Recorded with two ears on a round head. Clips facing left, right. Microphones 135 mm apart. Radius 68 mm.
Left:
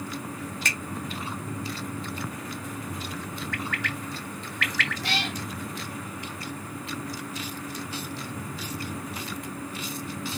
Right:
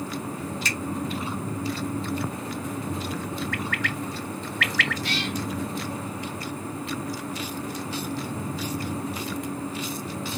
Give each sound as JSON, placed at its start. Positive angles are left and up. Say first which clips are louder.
{"t": 0.7, "sound": "a finger snap", "louder": "right 2 dB", "side_deg": 50, "distance_m": 1.7}
{"t": 3.5, "sound": "a bird", "louder": "right 3 dB", "side_deg": -60, "distance_m": 1.6}
{"t": 5.0, "sound": "a cat meowing", "louder": "right 2 dB", "side_deg": 50, "distance_m": 3.0}